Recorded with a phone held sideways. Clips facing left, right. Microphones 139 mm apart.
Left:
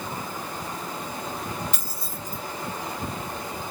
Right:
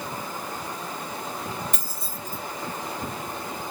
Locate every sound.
1.7 s keys jangling: 50° right (ahead or behind), 1.7 m